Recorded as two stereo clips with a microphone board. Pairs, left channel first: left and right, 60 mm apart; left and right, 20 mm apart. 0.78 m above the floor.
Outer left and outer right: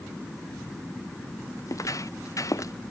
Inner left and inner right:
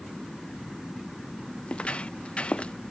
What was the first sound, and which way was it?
Footsteps, 65° left (ahead or behind).